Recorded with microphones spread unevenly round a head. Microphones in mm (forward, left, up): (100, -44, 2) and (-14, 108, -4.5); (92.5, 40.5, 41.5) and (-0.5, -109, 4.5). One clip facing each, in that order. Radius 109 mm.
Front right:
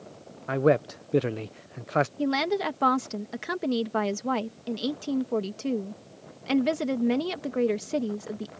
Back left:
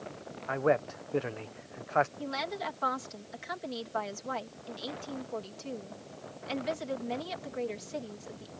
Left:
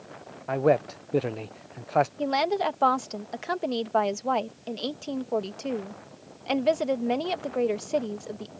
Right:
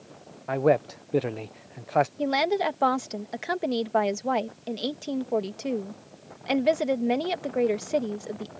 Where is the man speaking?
25° right.